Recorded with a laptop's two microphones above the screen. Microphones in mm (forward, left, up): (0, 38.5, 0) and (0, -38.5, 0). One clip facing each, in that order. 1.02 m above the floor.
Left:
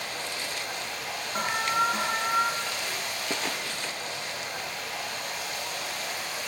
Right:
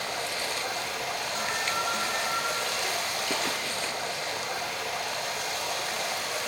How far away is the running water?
About 1.2 m.